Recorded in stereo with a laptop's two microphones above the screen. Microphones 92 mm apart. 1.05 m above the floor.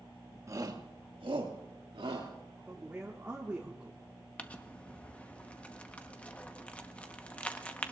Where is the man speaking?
15° right (ahead or behind), 1.3 m.